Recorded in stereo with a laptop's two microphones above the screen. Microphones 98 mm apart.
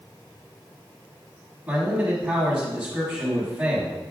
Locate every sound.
1.7 s a man speaking: 15° right (ahead or behind), 1.2 m